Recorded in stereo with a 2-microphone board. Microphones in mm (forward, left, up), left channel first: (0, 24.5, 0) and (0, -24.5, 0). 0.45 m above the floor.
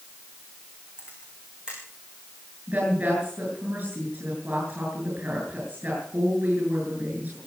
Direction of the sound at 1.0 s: 20° right (ahead or behind).